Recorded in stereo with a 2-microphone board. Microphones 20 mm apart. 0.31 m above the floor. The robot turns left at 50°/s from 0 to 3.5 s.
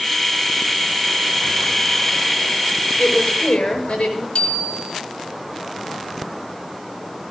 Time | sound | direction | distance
3.0 | a woman speaking | 60° left (ahead or behind) | 5.5 m
4.3 | a bicycle bell | 55° left (ahead or behind) | 2.5 m